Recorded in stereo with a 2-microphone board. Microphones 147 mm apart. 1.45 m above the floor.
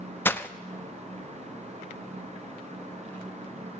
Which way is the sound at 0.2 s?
15° left (ahead or behind).